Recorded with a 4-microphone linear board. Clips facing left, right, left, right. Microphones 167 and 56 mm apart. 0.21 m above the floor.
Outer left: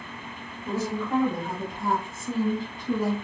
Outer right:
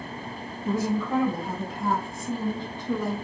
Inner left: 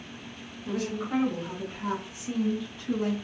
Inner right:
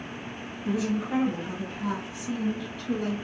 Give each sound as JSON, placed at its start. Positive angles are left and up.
{"t": 0.7, "sound": "a woman speaking", "side_deg": -15, "distance_m": 1.5}